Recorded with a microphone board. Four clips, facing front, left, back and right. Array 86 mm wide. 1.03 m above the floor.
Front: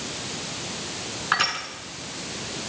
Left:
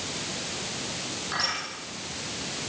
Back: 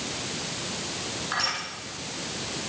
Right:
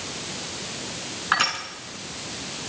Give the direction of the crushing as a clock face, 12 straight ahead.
2 o'clock.